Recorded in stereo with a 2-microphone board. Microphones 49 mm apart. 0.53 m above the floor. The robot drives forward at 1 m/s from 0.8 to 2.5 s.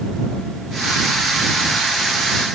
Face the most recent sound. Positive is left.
No sound to turn to.